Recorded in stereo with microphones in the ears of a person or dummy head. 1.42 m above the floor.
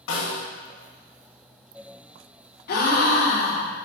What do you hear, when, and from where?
0.1 s a snare drum: 75° left (ahead or behind), 1.0 m
2.7 s a gasp: 50° left (ahead or behind), 0.6 m